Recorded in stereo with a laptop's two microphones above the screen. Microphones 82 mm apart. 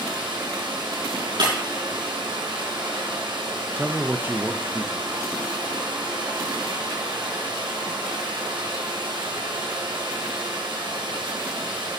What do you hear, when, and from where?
0.0 s running water: 80° right, 2.5 m
1.4 s breaking glass: 75° right (ahead or behind), 5 m
3.8 s a man speaking: 25° right (ahead or behind), 0.5 m